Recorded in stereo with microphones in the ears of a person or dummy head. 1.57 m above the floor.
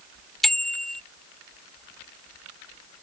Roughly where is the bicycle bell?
Centre.